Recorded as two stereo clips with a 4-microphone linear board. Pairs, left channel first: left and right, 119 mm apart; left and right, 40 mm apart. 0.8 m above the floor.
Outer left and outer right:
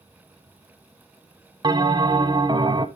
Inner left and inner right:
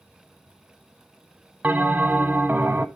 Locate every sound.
1.6 s a bell: 40° right (ahead or behind), 0.9 m